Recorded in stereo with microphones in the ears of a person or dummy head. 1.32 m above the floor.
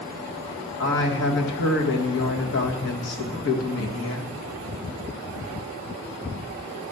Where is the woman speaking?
60° left (ahead or behind), 1.6 m.